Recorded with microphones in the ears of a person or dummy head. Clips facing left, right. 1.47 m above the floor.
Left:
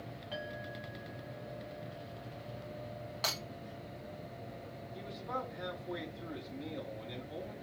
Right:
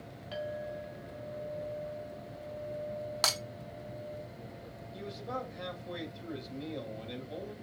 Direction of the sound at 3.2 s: 65° right (ahead or behind).